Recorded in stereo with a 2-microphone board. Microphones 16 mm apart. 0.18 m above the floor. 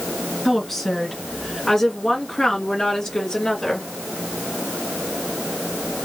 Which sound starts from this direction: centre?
A woman speaking, at 0.5 s.